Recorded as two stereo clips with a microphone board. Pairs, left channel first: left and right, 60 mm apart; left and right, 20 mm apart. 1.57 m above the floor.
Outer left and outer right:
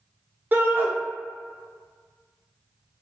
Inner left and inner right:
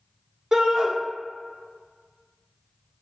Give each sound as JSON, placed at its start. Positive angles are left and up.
{"t": 0.5, "sound": "a shout", "side_deg": -35, "distance_m": 0.8}